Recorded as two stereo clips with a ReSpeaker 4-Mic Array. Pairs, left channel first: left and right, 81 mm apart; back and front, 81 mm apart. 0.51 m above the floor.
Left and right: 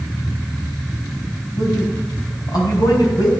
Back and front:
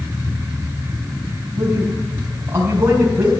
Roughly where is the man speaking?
Ahead left.